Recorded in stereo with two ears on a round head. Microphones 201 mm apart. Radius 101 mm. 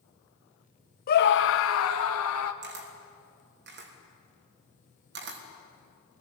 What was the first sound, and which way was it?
A scream, 40° left (ahead or behind).